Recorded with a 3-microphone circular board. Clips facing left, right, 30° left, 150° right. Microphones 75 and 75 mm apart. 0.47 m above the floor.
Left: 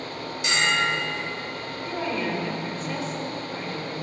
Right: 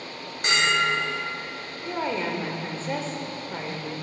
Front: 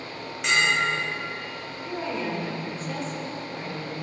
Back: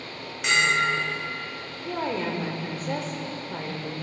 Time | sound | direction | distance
0.4 | a bell | 65° right | 2 m
1.9 | a woman speaking | 140° right | 1.2 m